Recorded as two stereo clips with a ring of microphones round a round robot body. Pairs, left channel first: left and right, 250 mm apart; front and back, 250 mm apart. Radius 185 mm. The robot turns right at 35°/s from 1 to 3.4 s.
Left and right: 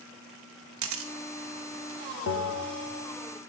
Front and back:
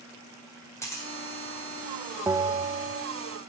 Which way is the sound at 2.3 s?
100° left.